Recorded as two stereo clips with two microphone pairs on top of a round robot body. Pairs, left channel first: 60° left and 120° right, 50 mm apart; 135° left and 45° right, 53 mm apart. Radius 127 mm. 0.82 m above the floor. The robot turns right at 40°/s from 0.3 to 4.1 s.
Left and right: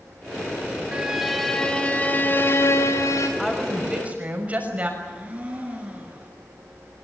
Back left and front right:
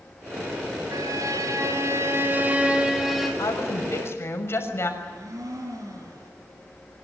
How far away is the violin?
About 4 m.